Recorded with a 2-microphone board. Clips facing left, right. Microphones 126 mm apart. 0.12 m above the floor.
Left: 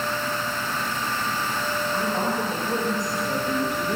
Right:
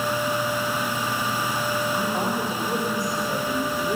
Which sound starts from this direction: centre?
A woman speaking, at 1.9 s.